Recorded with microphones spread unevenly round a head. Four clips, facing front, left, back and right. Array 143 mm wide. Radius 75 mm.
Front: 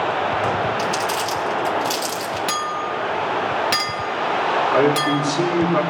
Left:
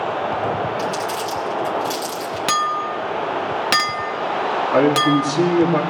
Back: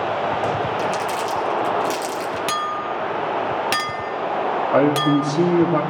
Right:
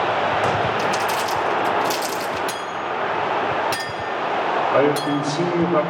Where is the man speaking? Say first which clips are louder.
Left 5 dB, back 3 dB; 140° left, 2.5 m.